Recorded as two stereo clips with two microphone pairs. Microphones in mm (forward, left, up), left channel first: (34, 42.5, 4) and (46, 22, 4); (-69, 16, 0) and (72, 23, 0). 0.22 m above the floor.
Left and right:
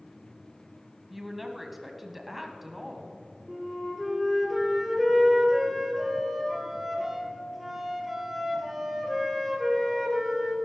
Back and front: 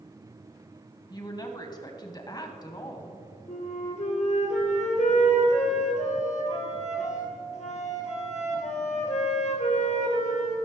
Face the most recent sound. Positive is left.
turn(degrees=-145)